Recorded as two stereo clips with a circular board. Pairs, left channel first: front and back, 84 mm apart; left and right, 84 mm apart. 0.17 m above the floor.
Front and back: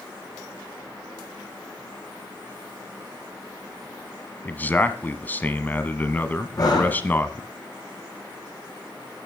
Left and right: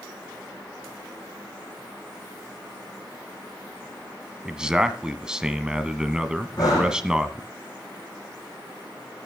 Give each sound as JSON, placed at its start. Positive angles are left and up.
{"t": 4.5, "sound": "a man speaking", "azimuth_deg": -25, "distance_m": 1.3}
{"t": 6.6, "sound": "breathing", "azimuth_deg": 45, "distance_m": 7.0}